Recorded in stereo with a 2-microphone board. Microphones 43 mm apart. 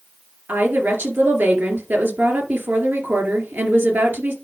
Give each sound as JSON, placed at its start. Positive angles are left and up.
{"t": 0.5, "sound": "a woman speaking", "side_deg": -55, "distance_m": 3.0}